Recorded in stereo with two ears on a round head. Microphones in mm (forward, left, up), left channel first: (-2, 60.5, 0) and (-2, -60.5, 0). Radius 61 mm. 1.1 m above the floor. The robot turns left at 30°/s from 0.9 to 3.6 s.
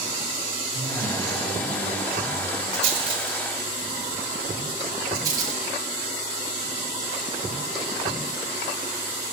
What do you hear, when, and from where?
0.7 s a man speaking: 115° left, 5.5 m; by 2.6 s 60° left, 5.5 m
2.7 s a rattle: 50° right (ahead or behind), 5 m; by 5.6 s 25° right (ahead or behind), 5 m